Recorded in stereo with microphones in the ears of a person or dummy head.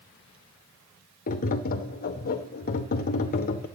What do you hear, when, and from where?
1.3 s tapping: 50° left (ahead or behind), 0.6 m